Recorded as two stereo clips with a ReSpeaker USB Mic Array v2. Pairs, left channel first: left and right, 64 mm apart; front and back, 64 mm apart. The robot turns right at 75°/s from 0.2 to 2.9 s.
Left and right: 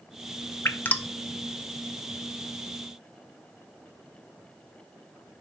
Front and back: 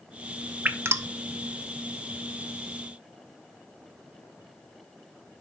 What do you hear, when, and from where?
0.7 s dripping: 125° left, 0.7 m; by 1.1 s 160° left, 0.7 m